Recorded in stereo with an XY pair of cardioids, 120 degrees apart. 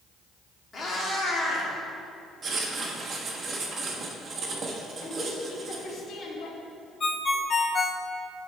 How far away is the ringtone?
About 0.6 m.